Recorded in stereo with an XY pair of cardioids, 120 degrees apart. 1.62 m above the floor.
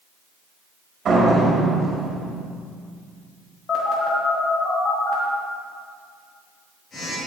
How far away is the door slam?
About 2.5 m.